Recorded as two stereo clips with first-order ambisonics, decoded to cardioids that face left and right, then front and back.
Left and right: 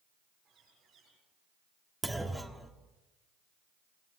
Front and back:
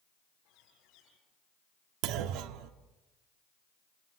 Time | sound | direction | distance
0.5 | a bird | 30° right | 8 m
2.0 | a clunk | 175° right | 1.3 m